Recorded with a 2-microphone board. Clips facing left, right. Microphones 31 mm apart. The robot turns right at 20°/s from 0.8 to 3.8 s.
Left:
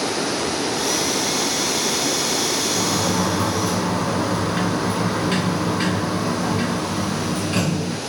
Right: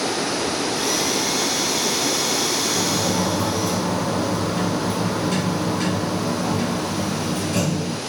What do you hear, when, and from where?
2.8 s a sliding door: 55° left (ahead or behind), 1.8 m; by 8.0 s 40° left (ahead or behind), 1.8 m